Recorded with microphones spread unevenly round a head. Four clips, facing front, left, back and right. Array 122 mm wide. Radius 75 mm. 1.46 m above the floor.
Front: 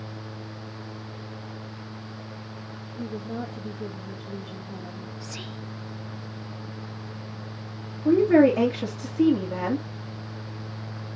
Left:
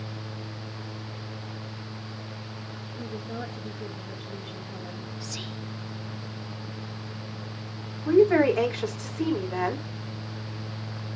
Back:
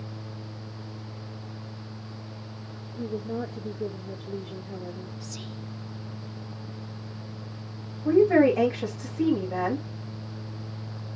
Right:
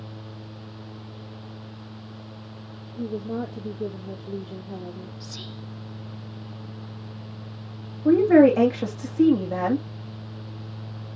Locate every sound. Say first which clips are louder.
3.0 s a woman speaking: right 7 dB, back 2 dB; 125° right, 2 m
5.2 s whispering: left 2 dB, front 2 dB; 10° left, 0.7 m
8.1 s a woman speaking: right 4 dB, front 1 dB; 75° right, 2.5 m